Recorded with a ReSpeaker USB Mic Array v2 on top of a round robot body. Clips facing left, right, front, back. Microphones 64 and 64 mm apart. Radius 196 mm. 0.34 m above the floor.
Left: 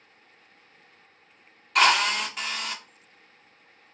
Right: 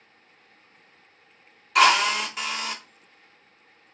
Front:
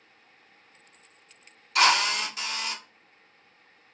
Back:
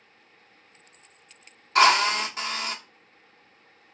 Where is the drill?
175° right, 1.3 m.